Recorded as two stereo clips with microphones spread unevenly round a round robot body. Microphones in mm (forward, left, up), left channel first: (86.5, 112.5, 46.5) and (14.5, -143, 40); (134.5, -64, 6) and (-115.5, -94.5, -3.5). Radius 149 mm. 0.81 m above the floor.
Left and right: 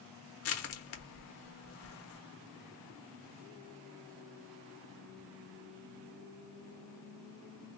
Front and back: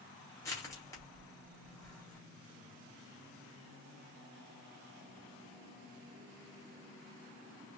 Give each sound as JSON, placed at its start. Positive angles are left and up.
{"t": 0.4, "sound": "crushing", "azimuth_deg": 85, "distance_m": 1.0}